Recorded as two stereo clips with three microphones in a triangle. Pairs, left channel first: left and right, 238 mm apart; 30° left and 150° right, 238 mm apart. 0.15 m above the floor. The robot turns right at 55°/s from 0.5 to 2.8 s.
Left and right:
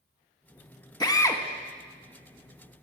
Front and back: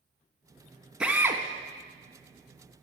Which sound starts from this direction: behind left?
A drill, at 1.0 s.